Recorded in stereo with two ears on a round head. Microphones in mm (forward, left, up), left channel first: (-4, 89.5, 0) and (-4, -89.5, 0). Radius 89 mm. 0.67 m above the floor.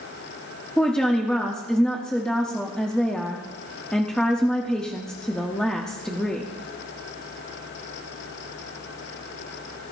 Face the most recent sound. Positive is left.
turn(degrees=5)  # may be behind; listen again after turning